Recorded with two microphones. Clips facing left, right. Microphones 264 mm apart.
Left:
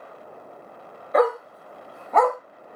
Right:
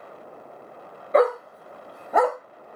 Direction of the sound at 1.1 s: 30° right (ahead or behind).